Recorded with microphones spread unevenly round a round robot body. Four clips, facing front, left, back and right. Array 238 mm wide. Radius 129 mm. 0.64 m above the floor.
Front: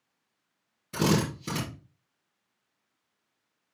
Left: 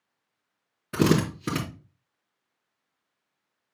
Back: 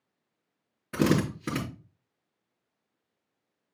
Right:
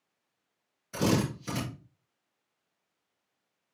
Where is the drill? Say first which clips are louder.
Left 5 dB, back 1 dB; 105° left, 4 m.